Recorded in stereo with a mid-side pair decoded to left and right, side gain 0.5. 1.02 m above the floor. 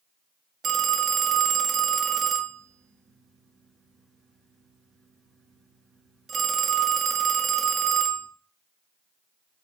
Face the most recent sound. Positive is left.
turn(degrees=-45)